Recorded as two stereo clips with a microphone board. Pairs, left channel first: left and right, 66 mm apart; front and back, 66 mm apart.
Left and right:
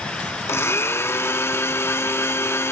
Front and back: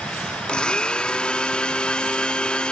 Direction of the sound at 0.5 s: 70° left.